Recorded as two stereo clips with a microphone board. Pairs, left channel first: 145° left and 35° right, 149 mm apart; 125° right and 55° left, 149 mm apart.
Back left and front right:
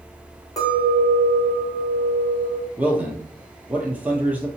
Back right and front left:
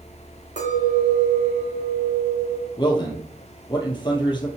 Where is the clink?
80° left, 2.5 m.